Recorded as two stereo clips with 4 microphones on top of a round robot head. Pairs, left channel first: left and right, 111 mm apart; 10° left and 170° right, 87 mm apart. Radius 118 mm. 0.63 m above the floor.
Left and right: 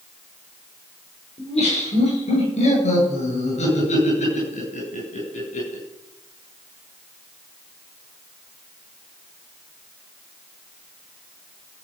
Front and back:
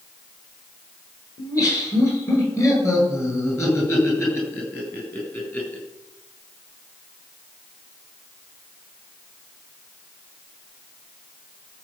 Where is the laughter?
60° left, 10 m; by 5.8 s 80° left, 9.5 m.